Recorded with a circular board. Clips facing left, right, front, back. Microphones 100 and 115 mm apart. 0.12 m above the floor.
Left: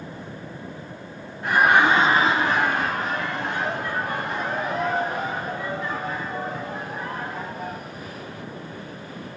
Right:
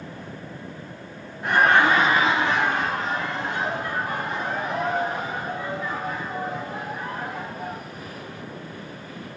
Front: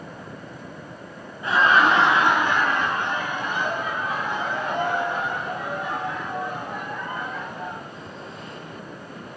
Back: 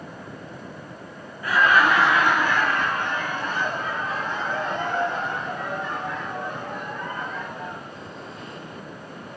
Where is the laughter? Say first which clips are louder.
Even, front 1 dB; straight ahead, 1.1 m; by 7.8 s 80° left, 7.5 m.